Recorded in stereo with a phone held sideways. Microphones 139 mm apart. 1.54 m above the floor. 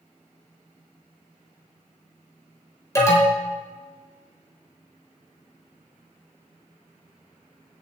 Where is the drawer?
I don't hear a drawer.